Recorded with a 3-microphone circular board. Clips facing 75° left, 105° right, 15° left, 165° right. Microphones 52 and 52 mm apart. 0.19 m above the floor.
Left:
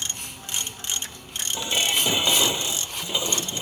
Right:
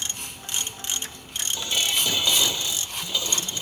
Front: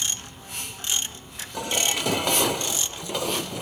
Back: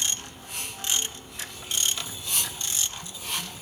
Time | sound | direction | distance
1.5 | dishes clattering | 5° left | ?